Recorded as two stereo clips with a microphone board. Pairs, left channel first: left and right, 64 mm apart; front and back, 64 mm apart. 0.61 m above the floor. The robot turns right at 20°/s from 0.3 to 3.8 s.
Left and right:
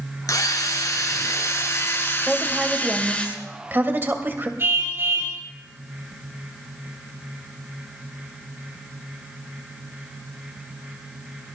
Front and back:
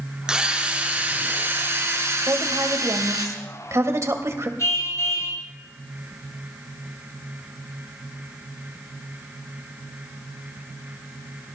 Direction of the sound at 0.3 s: 105° left.